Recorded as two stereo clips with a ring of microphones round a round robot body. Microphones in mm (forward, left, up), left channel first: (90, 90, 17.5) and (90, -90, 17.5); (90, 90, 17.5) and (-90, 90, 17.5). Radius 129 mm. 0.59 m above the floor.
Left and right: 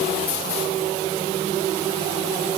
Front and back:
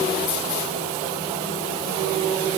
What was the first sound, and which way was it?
Only background noise.